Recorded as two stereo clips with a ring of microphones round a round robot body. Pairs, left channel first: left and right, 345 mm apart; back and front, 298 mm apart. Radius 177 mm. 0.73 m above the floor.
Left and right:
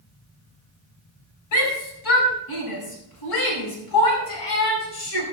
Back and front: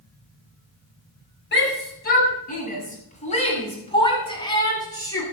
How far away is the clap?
I don't hear a clap.